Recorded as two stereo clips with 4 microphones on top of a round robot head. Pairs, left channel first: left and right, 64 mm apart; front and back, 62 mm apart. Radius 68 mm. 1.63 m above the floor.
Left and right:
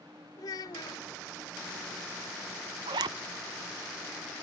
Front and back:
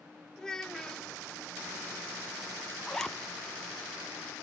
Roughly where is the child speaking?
Left.